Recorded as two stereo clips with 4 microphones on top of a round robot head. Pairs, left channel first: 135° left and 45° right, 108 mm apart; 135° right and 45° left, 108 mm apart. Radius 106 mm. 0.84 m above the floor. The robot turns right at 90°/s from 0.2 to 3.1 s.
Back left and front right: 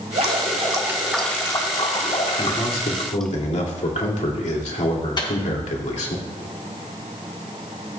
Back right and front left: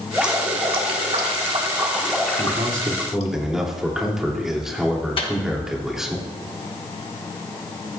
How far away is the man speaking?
About 2.5 m.